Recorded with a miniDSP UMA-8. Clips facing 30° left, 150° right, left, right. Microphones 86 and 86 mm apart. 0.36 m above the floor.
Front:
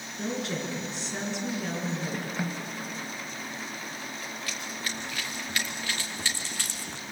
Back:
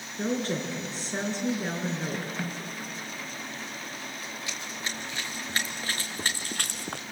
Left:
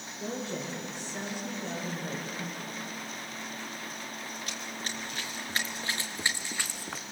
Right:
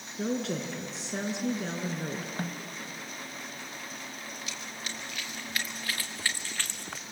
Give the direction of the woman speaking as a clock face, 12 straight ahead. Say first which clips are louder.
Back 3 dB, right 5 dB; 3 o'clock.